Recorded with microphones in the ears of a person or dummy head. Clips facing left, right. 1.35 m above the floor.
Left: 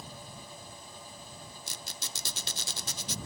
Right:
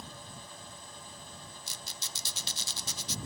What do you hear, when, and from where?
1.7 s a squeak: 50° left (ahead or behind)